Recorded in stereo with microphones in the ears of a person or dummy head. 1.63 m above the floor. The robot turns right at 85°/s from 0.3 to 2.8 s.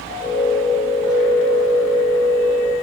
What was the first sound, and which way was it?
Only background noise.